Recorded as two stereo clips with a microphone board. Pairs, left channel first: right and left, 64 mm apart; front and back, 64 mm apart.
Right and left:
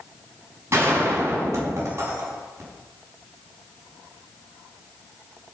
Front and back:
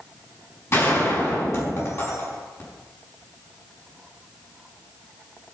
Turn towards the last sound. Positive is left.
turn(degrees=45)